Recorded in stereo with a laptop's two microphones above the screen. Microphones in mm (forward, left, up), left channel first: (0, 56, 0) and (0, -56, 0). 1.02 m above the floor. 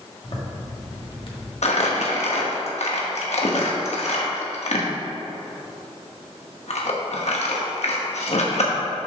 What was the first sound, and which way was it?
A zipper, 50° left (ahead or behind).